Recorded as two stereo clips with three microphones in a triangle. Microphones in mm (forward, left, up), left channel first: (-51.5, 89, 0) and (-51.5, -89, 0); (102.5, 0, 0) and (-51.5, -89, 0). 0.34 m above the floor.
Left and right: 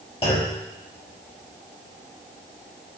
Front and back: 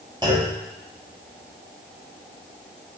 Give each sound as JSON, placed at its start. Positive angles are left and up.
{"t": 0.2, "sound": "a clunk", "azimuth_deg": 150, "distance_m": 0.9}